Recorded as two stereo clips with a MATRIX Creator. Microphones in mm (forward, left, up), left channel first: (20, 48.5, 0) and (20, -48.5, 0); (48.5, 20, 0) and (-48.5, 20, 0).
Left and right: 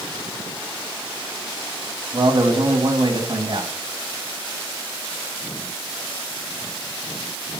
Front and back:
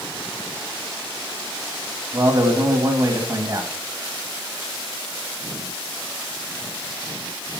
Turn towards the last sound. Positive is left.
turn(degrees=-130)